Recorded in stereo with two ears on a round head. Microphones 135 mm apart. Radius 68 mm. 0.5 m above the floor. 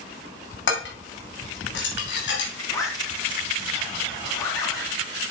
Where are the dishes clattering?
80° left, 3 m.